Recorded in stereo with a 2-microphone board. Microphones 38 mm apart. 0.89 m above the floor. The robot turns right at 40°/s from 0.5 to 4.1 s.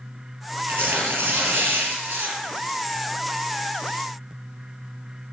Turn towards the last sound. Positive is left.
turn(degrees=10)